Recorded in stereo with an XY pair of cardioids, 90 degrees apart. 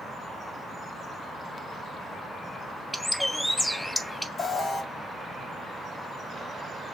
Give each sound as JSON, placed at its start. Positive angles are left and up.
{"t": 2.9, "sound": "a bird", "azimuth_deg": 5, "distance_m": 0.7}
{"t": 4.4, "sound": "an alarm", "azimuth_deg": 55, "distance_m": 1.7}